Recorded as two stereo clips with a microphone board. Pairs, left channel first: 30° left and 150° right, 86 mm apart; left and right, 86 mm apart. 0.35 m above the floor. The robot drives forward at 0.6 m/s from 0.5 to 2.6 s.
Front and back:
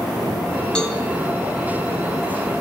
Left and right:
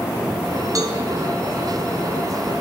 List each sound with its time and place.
0.8 s a cowbell: 50° right, 4.5 m